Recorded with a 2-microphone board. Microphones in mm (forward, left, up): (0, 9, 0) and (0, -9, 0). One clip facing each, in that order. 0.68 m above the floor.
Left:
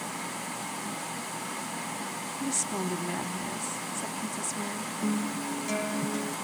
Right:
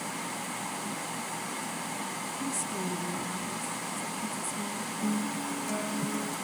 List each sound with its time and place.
2.4 s a woman speaking: 50° left (ahead or behind), 1.1 m
5.0 s a guitar: 25° left (ahead or behind), 0.8 m